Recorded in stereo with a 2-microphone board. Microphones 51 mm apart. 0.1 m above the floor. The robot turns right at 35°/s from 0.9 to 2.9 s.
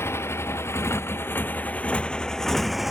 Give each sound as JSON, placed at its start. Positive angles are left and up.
{"t": 0.0, "sound": "a motorcycle", "side_deg": 55}